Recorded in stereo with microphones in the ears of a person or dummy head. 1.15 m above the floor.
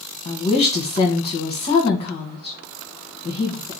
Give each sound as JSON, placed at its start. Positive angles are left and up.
{"t": 0.2, "sound": "a woman speaking", "side_deg": 25, "distance_m": 1.3}